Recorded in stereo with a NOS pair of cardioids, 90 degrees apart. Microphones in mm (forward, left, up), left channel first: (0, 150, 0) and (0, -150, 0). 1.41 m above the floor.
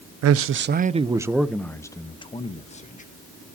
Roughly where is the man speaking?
Ahead right.